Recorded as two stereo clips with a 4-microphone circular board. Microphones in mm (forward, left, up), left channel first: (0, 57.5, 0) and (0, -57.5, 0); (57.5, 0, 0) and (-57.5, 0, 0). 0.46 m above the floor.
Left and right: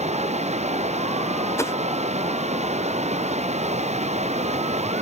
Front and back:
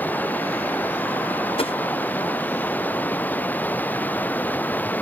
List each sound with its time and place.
0.0 s running water: 75° right
1.6 s a whoosh: 25° left